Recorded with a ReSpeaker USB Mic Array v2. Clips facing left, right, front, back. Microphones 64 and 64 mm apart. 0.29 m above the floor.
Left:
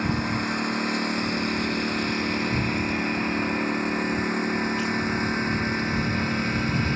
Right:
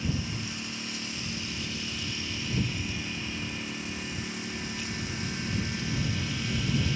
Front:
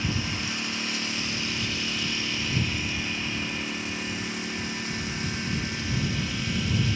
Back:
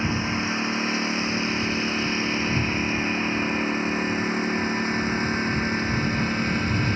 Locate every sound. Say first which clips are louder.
0.0 s a lawn mower: left 8 dB, back 5 dB; 120° left; by 7.0 s 130° left